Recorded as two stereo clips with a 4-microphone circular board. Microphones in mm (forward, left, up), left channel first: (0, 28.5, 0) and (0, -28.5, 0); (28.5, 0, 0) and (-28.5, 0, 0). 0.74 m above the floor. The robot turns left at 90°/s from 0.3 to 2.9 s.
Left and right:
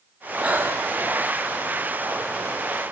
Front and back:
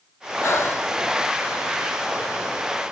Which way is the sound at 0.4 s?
20° right.